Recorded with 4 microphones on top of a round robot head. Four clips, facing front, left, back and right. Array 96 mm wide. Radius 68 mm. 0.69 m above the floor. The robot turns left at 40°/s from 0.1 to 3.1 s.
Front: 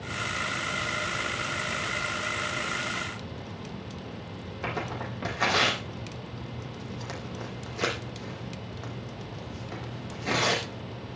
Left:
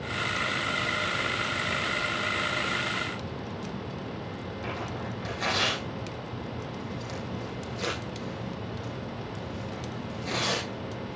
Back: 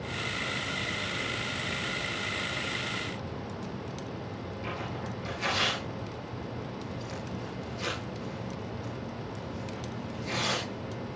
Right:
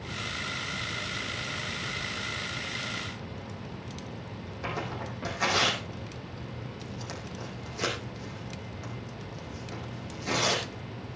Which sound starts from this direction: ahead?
Tearing paper, at 4.6 s.